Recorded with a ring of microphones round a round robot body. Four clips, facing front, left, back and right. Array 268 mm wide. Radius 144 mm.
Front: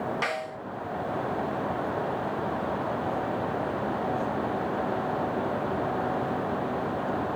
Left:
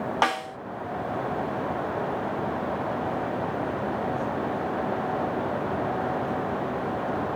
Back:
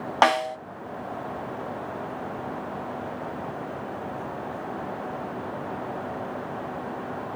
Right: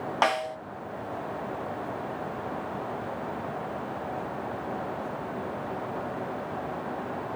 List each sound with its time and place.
0.2 s a snare drum: straight behind, 1.4 m